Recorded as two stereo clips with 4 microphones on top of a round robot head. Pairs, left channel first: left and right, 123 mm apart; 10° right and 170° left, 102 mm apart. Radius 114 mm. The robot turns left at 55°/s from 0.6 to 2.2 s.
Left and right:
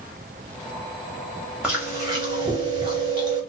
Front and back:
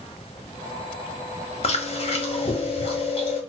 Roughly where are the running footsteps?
No running footsteps in this recording.